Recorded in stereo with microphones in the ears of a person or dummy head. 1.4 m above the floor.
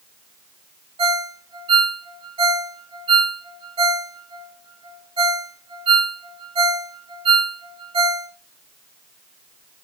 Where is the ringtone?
25° right (ahead or behind), 2 m.